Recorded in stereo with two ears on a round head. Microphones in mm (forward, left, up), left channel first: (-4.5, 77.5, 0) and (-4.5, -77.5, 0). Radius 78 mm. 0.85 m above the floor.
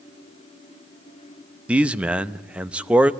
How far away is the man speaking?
About 0.6 m.